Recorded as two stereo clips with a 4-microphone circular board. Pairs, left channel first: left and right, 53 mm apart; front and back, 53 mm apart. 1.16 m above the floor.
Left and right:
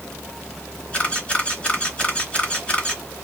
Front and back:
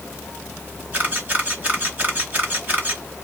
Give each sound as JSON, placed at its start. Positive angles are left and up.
{"t": 0.9, "sound": "a camera shutter", "azimuth_deg": 140, "distance_m": 1.3}